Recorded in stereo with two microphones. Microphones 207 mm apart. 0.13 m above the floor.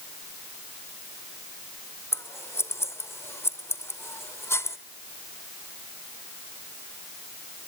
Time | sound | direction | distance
2.1 | scissors | 10° left (ahead or behind) | 1.0 m